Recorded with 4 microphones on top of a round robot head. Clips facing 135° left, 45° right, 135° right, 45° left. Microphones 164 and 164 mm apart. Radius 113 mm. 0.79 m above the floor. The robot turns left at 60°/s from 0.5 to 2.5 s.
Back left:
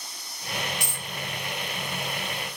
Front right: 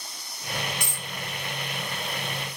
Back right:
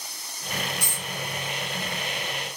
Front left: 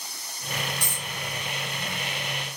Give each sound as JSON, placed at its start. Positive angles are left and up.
{"t": 0.8, "sound": "a dropped coin", "azimuth_deg": -50, "distance_m": 0.8}